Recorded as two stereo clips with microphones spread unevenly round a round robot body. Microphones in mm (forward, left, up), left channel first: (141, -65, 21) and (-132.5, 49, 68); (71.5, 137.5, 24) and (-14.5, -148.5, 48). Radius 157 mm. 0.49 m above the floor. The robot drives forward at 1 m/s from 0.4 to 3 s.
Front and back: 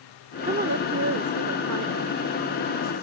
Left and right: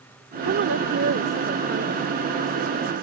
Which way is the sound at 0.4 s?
140° right.